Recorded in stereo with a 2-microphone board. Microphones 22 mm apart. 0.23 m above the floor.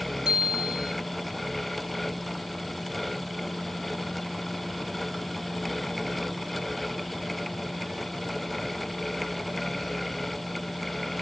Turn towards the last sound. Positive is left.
turn(degrees=-30)  # may be behind; listen again after turning